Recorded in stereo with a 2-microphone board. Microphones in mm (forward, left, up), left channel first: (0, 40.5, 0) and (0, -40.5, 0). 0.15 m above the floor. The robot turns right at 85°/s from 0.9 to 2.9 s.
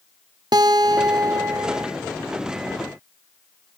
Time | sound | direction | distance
0.5 | a guitar | 100° right | 1.0 m